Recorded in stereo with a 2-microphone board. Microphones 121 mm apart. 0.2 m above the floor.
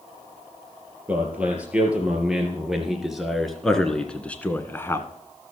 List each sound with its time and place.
1.1 s a man speaking: 10° right (ahead or behind), 4 m; by 5.1 s 25° left (ahead or behind), 1.5 m